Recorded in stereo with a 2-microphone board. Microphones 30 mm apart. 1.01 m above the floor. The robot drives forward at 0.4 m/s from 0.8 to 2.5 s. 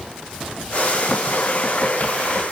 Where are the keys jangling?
I don't hear keys jangling.